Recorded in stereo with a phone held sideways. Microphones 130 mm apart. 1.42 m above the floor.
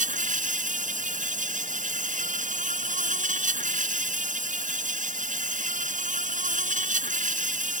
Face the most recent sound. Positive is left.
turn(degrees=-80)